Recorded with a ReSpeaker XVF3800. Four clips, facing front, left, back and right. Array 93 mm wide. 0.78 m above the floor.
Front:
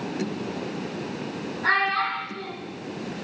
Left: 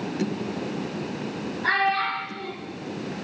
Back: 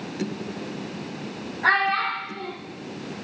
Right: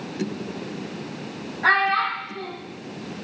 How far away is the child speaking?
About 3.5 m.